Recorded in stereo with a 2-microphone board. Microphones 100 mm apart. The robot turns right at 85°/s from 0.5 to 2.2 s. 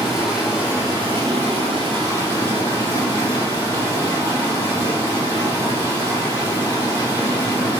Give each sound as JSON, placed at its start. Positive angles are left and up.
{"t": 0.0, "sound": "running water", "azimuth_deg": -175, "distance_m": 3.0}